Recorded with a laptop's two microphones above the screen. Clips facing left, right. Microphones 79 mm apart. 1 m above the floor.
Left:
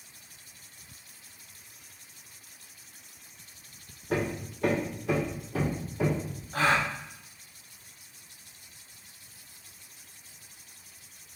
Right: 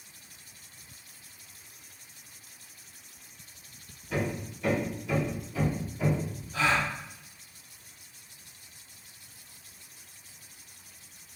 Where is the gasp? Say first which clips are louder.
Left 1 dB; 45° left (ahead or behind), 0.6 m.